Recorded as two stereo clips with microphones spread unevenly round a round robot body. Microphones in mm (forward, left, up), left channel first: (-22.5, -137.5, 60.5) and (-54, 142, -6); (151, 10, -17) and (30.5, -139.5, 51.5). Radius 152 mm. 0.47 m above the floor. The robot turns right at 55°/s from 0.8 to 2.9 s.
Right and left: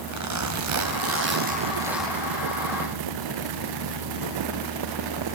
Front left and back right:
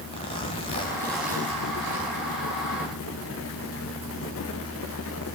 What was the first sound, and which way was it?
A zipper, 115° left.